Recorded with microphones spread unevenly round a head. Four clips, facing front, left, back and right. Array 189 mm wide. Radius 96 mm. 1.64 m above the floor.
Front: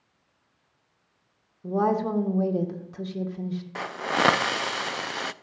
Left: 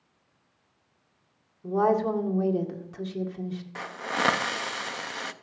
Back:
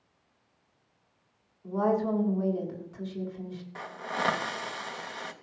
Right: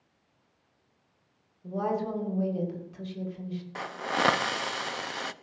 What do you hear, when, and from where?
1.6 s a woman speaking: 35° left, 2 m
3.8 s a hiss: 5° left, 0.6 m